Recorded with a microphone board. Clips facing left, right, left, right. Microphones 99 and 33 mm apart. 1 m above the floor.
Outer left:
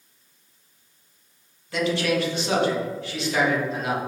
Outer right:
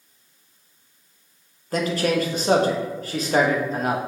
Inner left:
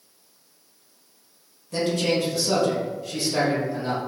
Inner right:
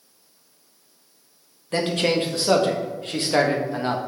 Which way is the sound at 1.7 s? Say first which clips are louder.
Outer right 1 dB, inner right 2 dB; 40° right (ahead or behind).